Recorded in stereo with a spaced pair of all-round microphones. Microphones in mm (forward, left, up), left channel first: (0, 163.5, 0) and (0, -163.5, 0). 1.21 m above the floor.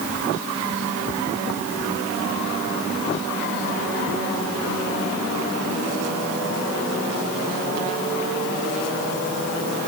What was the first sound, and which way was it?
Only background noise.